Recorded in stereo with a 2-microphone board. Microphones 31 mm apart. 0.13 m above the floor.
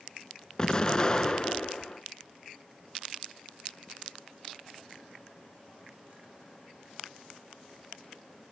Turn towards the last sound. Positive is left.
turn(degrees=25)  # may be behind; listen again after turning